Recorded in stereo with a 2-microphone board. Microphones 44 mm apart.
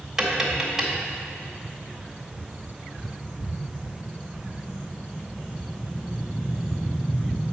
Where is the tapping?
10° right (ahead or behind), 1.4 m.